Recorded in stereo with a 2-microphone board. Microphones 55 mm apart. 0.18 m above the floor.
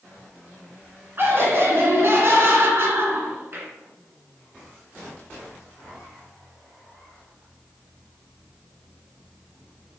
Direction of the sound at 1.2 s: 45° right (ahead or behind).